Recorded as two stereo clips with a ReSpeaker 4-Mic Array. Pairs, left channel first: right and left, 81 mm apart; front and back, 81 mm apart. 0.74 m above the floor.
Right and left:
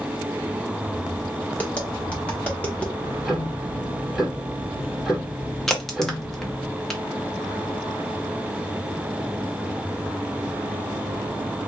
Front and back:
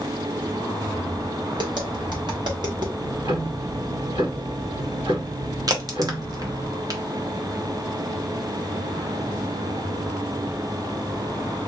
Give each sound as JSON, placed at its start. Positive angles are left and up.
{"t": 1.6, "sound": "tapping", "azimuth_deg": -165, "distance_m": 1.4}
{"t": 3.0, "sound": "ticking", "azimuth_deg": 180, "distance_m": 2.0}
{"t": 5.7, "sound": "a crack", "azimuth_deg": -170, "distance_m": 0.9}